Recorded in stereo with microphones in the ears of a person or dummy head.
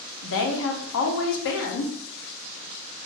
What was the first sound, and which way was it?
A woman speaking, 70° left (ahead or behind).